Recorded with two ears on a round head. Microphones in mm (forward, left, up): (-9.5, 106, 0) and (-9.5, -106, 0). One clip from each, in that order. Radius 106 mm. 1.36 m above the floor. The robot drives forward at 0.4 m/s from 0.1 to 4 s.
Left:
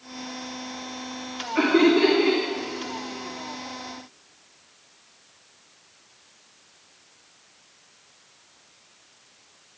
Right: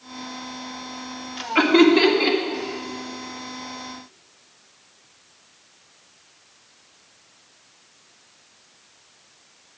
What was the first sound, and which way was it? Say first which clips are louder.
Laughter: right 4 dB; 70° right (ahead or behind).